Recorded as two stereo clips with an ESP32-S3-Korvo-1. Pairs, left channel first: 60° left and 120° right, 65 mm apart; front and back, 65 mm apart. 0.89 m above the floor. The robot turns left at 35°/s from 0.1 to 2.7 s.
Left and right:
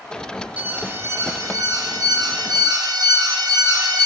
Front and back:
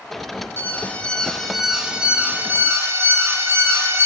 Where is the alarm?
55° right, 0.7 m; by 4.1 s 130° right, 0.7 m.